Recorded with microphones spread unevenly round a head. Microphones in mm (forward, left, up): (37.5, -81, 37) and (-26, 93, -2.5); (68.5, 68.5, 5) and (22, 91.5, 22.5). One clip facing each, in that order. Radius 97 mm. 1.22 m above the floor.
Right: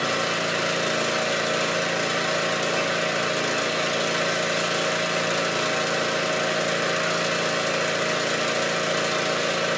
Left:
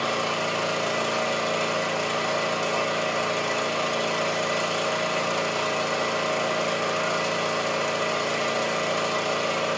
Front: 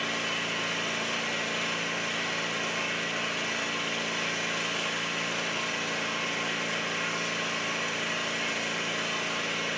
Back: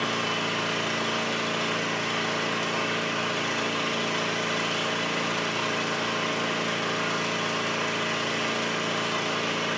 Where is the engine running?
140° right, 0.7 m.